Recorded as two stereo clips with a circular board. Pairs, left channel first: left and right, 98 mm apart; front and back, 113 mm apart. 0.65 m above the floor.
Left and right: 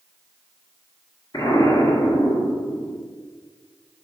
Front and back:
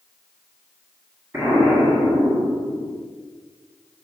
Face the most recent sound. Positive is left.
turn(degrees=115)